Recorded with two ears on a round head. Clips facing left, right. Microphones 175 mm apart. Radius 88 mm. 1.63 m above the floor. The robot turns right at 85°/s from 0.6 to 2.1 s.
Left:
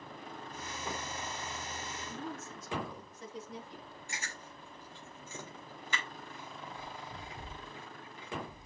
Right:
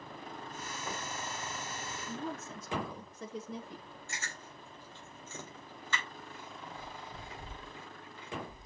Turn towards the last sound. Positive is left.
turn(degrees=15)  # may be behind; listen again after turning